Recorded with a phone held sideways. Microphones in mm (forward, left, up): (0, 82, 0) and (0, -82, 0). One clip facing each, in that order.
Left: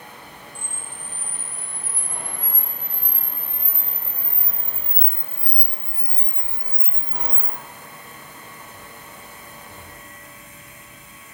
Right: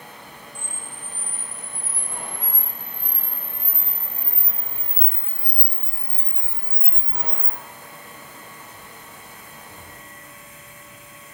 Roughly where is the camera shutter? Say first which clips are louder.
Even; right.